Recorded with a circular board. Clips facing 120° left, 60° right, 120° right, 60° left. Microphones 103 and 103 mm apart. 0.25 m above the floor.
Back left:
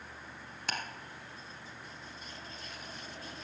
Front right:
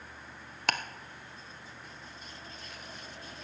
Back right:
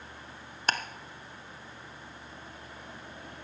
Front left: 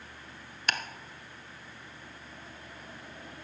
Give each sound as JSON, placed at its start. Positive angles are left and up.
{"t": 0.7, "sound": "ticking", "azimuth_deg": -70, "distance_m": 0.9}